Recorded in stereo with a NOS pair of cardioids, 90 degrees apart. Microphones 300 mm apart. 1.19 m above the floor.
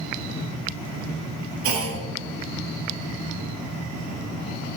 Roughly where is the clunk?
Ahead right.